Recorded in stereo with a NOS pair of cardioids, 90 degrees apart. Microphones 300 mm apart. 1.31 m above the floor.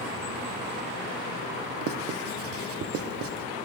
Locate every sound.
1.8 s writing: 50° right, 0.5 m